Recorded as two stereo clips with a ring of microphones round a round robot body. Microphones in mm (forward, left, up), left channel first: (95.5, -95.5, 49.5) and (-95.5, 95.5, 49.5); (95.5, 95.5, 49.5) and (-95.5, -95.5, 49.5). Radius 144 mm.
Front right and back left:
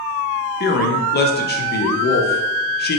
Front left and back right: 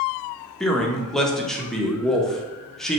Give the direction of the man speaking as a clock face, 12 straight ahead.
1 o'clock.